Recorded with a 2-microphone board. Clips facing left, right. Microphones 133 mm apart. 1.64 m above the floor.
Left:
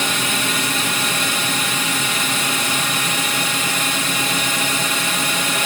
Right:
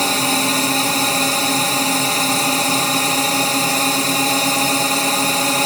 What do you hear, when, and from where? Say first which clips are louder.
0.0 s a drone: right 5 dB; 35° right (ahead or behind)